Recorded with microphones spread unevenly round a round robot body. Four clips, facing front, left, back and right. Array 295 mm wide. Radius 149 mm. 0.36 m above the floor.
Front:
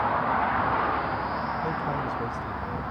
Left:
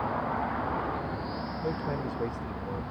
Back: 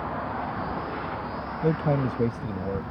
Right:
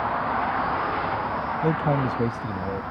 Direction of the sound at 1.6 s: 130° right.